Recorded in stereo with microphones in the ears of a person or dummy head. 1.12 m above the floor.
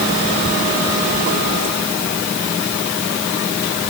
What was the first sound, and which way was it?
Only background noise.